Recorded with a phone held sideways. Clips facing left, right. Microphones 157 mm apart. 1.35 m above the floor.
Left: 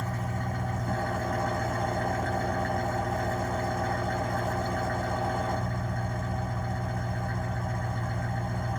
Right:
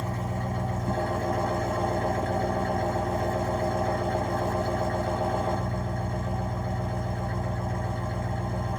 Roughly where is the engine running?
Right.